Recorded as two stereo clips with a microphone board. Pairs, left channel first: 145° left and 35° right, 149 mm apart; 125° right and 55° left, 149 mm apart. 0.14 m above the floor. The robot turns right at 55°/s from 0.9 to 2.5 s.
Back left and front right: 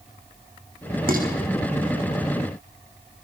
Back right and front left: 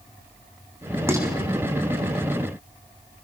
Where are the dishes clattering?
20° right, 4 m; by 1.3 s 10° right, 4 m.